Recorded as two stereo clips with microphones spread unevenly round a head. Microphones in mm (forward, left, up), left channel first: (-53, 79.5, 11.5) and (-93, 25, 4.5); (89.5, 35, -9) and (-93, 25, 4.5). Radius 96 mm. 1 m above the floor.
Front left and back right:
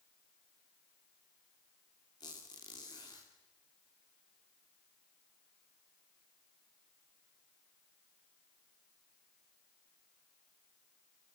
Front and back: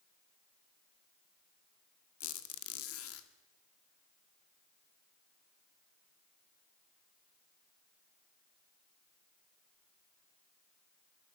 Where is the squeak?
10° right, 1.8 m.